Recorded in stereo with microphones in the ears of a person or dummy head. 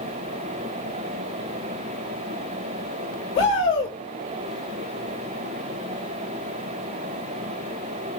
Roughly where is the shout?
Left.